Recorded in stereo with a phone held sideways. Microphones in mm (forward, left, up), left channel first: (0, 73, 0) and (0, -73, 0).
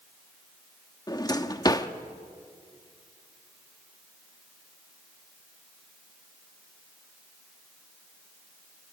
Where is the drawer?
25° left (ahead or behind), 1.0 m.